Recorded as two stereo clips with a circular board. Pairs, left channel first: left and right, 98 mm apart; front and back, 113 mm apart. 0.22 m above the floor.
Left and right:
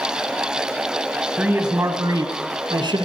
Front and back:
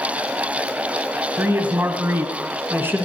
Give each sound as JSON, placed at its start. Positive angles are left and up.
{"t": 1.4, "sound": "a man speaking", "azimuth_deg": -145, "distance_m": 1.0}